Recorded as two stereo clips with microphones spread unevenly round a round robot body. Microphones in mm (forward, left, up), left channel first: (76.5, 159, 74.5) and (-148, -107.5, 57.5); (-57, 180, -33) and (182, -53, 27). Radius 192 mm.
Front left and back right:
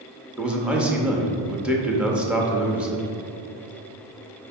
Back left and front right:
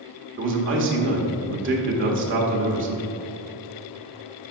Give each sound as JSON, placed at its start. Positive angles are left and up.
{"t": 0.4, "sound": "a man speaking", "azimuth_deg": -55, "distance_m": 0.8}